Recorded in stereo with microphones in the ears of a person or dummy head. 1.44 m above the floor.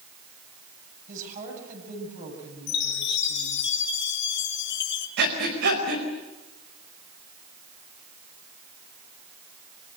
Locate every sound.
1.1 s a woman speaking: 50° right (ahead or behind), 9.5 m
2.7 s a chime: 65° left (ahead or behind), 3 m
5.2 s breathing: 55° right (ahead or behind), 4.5 m